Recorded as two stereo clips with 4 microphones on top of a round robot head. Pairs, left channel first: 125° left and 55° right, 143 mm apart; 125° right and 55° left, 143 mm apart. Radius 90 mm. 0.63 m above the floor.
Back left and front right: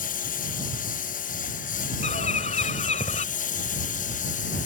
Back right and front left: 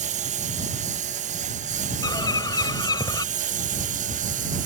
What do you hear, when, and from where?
0.0 s a lawn mower: 95° left; by 4.7 s 90° left
2.0 s a bird: 170° left